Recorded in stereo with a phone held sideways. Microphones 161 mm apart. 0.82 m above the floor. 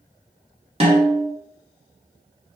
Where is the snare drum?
35° right (ahead or behind), 1.0 m.